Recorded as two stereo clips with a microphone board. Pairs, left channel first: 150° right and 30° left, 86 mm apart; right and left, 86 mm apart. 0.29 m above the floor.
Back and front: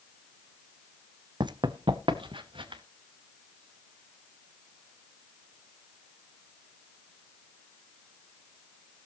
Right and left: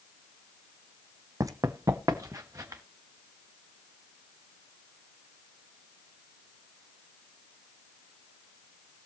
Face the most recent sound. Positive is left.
turn(degrees=40)